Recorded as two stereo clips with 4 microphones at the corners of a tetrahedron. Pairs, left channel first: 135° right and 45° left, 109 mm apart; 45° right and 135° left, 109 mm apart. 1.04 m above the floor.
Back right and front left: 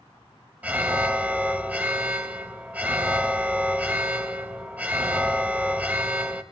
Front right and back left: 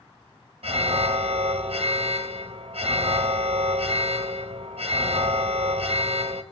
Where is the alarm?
120° left, 1.2 m.